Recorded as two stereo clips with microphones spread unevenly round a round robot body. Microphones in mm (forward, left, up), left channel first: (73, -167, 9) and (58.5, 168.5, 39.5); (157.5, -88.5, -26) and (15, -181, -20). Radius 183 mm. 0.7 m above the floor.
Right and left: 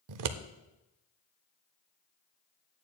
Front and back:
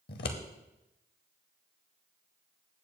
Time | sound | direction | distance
0.1 | scissors | 65° left | 0.7 m